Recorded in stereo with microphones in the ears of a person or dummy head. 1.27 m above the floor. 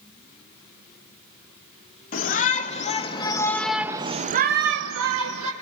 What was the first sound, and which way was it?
A shout, 45° left (ahead or behind).